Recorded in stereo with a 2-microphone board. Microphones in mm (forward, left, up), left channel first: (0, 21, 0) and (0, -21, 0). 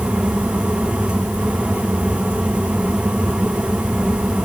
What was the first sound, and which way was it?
Only background noise.